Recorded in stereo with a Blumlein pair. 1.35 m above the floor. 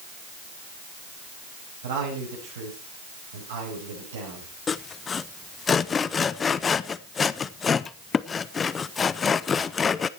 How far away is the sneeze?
I don't hear a sneeze.